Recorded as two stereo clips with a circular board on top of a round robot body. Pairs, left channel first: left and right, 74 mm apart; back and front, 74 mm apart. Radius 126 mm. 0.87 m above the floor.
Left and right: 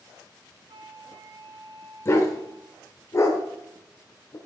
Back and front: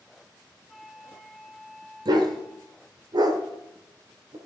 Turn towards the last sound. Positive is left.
turn(degrees=35)